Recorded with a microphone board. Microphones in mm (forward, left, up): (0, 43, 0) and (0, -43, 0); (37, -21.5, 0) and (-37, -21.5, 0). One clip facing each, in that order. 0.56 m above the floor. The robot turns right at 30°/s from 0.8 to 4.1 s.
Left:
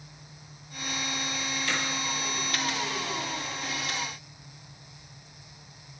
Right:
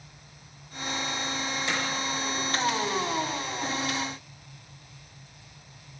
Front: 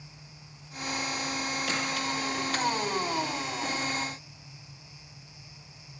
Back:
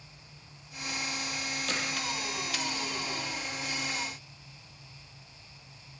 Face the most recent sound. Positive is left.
turn(degrees=55)